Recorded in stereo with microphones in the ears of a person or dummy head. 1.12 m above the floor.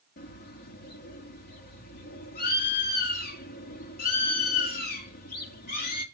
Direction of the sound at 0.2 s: 45° left (ahead or behind).